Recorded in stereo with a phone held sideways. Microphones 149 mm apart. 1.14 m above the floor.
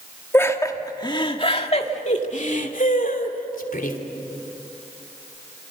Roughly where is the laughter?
Centre.